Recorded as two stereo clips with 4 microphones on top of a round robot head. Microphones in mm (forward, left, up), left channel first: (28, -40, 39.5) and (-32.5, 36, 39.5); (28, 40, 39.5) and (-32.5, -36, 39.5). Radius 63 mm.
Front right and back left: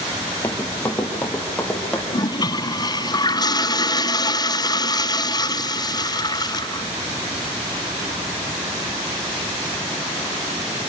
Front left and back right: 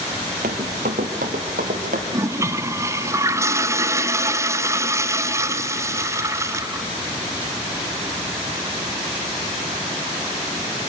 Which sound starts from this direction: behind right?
Running footsteps, at 0.4 s.